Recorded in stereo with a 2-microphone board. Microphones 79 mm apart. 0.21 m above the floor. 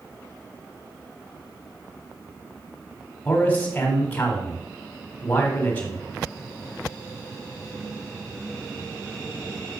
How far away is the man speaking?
About 1.3 m.